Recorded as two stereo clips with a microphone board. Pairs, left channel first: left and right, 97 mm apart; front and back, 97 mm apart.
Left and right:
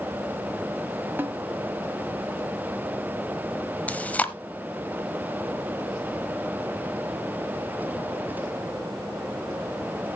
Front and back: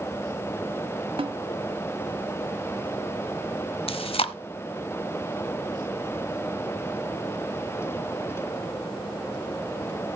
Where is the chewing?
15° left, 1.0 m.